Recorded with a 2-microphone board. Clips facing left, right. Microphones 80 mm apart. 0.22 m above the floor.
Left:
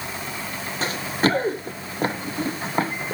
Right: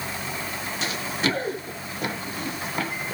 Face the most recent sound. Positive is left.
turn(degrees=30)  # may be behind; listen again after turning